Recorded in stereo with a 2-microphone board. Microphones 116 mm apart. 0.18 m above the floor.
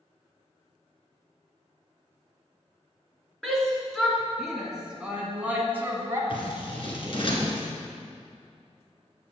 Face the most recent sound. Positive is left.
turn(degrees=50)  # may be behind; listen again after turning